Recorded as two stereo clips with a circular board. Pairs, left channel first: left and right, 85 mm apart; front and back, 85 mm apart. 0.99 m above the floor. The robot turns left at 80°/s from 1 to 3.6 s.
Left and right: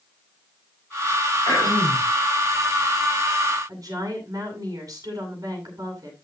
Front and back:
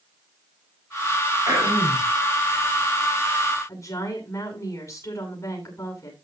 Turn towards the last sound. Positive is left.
turn(degrees=-45)